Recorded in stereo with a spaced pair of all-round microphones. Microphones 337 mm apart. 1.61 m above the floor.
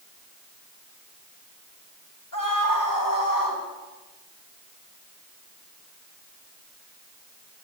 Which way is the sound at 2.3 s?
70° left (ahead or behind).